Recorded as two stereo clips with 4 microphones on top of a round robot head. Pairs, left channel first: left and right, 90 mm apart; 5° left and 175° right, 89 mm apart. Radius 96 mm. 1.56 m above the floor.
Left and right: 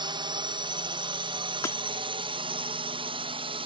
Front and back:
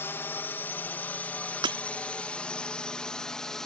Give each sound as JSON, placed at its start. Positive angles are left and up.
{"t": 0.0, "sound": "a drone", "azimuth_deg": -60}
{"t": 1.6, "sound": "breaking glass", "azimuth_deg": 160}